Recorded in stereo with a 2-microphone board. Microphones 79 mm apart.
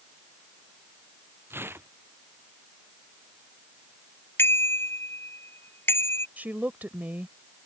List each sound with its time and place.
1.5 s tearing paper: 30° right (ahead or behind)
4.4 s a bicycle bell: 30° left (ahead or behind)
6.4 s a woman speaking: 25° right (ahead or behind)